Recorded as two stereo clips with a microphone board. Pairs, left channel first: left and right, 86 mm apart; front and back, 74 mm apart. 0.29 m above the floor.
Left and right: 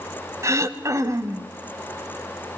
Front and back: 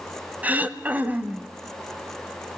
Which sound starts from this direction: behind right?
Throat clearing, at 0.4 s.